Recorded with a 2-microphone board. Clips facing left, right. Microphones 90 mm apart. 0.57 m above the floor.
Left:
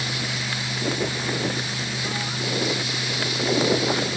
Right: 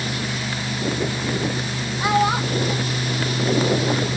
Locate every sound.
2.0 s a child speaking: 80° right